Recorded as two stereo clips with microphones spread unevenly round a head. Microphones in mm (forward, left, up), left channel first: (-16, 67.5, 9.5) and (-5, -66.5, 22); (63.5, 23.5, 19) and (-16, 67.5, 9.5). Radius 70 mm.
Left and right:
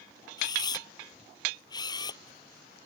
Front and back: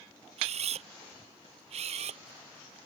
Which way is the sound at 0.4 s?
155° left.